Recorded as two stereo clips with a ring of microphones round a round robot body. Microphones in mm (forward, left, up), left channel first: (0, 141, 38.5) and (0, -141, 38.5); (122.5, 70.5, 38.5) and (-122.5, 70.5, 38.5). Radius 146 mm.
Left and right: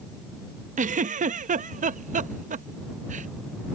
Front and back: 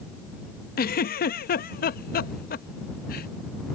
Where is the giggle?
35° right.